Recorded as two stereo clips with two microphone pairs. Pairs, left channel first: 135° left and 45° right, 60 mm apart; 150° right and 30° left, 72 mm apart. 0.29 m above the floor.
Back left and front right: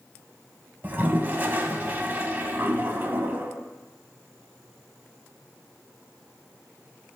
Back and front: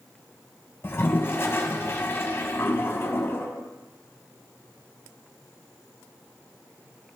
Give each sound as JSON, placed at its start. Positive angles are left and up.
{"t": 0.8, "sound": "a toilet flushing", "azimuth_deg": -100, "distance_m": 0.6}